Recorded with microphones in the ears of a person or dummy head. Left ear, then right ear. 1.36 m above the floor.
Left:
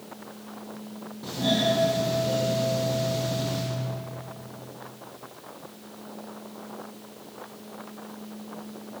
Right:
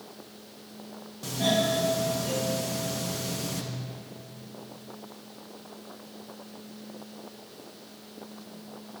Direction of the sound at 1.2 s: 50° right (ahead or behind).